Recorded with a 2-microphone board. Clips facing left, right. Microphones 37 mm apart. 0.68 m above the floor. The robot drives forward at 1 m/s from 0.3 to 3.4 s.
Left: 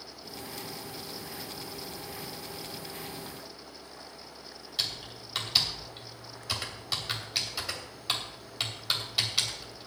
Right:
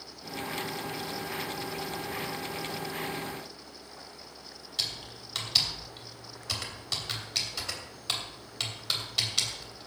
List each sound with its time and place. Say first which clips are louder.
4.8 s typing on a keyboard: left 1 dB; 5° left (ahead or behind), 3 m